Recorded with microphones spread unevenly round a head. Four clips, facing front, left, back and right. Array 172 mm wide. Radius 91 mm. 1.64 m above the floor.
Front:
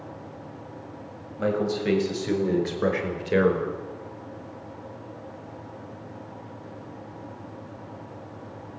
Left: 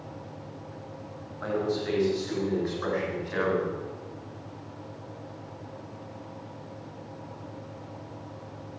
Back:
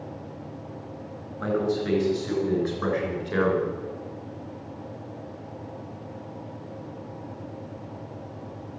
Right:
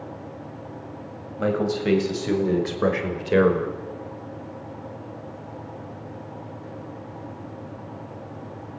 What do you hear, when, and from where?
1.4 s a man speaking: 80° right, 7.5 m